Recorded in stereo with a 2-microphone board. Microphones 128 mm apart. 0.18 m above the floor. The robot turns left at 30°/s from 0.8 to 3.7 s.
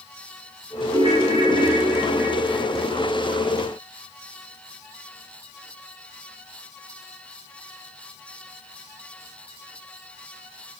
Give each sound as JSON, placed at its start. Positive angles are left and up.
{"t": 0.9, "sound": "a ringtone", "azimuth_deg": -125, "distance_m": 1.7}